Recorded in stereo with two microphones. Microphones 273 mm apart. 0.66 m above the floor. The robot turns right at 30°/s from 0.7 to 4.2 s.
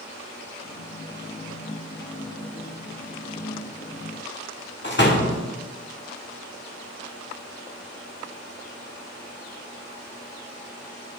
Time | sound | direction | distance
4.8 | a door slam | 40° left (ahead or behind) | 1.2 m